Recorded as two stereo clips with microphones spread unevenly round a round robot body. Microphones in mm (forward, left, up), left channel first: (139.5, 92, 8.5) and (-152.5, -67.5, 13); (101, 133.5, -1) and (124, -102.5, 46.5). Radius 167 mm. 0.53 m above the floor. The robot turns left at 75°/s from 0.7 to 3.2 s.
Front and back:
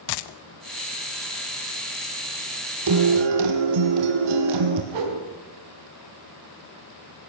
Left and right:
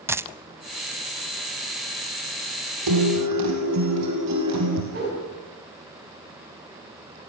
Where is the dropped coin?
10° right, 0.7 m.